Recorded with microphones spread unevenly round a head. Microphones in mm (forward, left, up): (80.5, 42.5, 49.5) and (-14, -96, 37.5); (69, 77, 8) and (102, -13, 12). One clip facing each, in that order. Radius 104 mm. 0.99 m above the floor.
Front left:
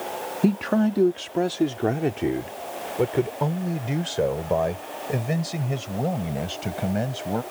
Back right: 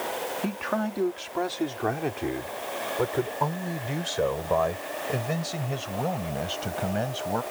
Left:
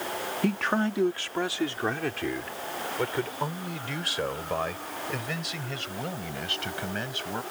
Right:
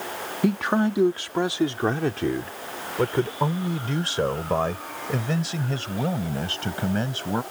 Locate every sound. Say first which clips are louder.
0.4 s a man speaking: front left 10 dB, right 5 dB; 5° left; by 7.4 s 15° right